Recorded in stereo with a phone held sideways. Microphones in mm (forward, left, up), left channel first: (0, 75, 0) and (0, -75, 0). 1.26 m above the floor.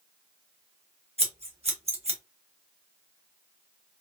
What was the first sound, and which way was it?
Scissors, 40° right (ahead or behind).